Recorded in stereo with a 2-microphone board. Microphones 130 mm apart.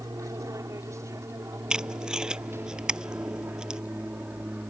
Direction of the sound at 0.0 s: 25° right (ahead or behind).